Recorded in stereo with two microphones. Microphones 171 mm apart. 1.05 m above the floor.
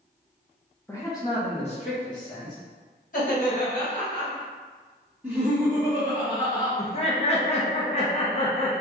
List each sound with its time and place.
0.9 s a man speaking: 10° left (ahead or behind), 0.9 m; by 2.6 s 50° left (ahead or behind), 1.4 m
3.1 s laughter: 50° left (ahead or behind), 1.7 m
5.2 s laughter: 10° right (ahead or behind), 1.4 m
6.8 s laughter: 35° left (ahead or behind), 0.7 m